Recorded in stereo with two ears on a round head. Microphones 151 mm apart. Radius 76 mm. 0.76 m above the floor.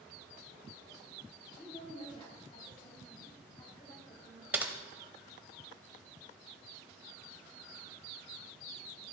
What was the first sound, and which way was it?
A woman speaking, 35° left (ahead or behind).